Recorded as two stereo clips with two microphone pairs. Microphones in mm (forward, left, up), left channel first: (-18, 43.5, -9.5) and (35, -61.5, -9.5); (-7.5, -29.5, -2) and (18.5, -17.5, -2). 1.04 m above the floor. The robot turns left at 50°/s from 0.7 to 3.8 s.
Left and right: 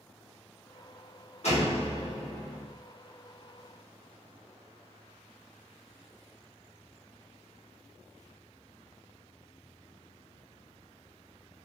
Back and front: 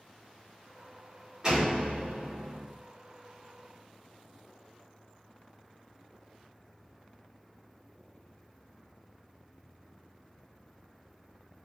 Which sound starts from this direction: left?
A door slam, at 1.4 s.